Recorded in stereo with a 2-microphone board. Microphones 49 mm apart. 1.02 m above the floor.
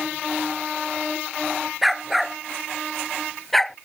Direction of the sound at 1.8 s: 5° right (ahead or behind).